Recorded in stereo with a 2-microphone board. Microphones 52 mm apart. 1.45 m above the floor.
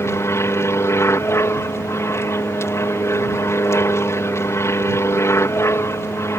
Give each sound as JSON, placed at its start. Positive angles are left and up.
{"t": 0.0, "sound": "an aircraft", "side_deg": 60}